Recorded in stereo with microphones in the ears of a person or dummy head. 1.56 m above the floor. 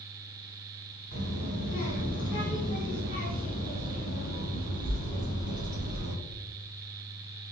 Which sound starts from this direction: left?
A child speaking, at 1.1 s.